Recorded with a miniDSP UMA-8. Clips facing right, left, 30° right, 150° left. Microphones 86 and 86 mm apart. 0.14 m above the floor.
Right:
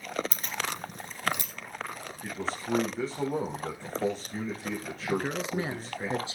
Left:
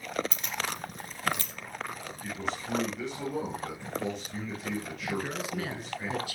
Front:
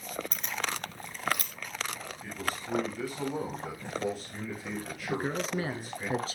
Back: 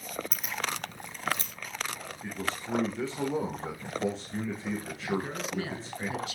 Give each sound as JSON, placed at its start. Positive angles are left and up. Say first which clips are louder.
{"t": 0.3, "sound": "keys jangling", "louder": "even, even", "azimuth_deg": -125, "distance_m": 1.6}
{"t": 2.2, "sound": "a man speaking", "louder": "right 1 dB, back 1 dB", "azimuth_deg": -150, "distance_m": 7.5}
{"t": 5.1, "sound": "a man speaking", "louder": "right 4 dB, front 1 dB", "azimuth_deg": -50, "distance_m": 1.5}